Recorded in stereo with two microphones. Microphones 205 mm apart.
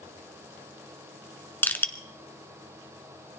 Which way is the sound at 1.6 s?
10° left (ahead or behind).